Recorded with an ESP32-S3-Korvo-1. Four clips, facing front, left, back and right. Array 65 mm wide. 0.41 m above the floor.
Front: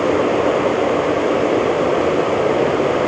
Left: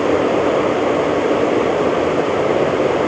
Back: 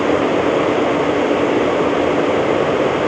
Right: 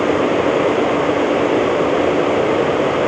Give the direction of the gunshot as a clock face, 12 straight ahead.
No gunshot in this recording.